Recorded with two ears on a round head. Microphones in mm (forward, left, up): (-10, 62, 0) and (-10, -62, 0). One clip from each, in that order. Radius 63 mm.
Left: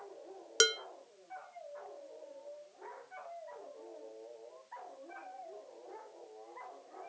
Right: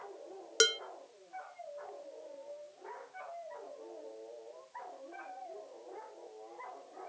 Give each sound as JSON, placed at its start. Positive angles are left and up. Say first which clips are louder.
{"t": 0.6, "sound": "dishes clattering", "louder": "even", "side_deg": 15, "distance_m": 0.6}